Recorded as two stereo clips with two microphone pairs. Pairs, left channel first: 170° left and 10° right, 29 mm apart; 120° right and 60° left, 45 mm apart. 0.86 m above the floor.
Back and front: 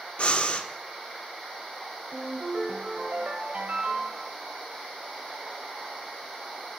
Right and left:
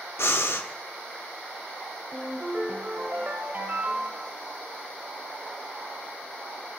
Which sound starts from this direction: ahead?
A ringtone, at 2.1 s.